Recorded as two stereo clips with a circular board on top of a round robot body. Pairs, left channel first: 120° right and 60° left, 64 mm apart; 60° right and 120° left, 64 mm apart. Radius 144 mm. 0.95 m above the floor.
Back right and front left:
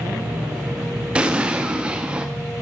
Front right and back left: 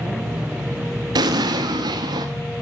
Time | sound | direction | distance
1.1 | an explosion | 135° left | 0.7 m